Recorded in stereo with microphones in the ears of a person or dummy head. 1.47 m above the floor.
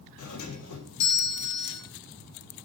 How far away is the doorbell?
About 3.5 m.